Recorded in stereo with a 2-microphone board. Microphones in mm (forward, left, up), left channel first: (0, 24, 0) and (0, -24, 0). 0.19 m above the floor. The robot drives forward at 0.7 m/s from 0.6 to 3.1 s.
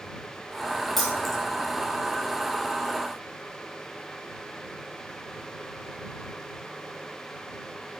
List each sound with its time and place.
1.0 s keys jangling: 5° left (ahead or behind), 5 m